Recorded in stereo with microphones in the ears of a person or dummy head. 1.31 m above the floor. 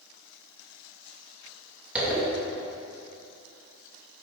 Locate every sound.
1.9 s a zipper: 10° right (ahead or behind), 2.5 m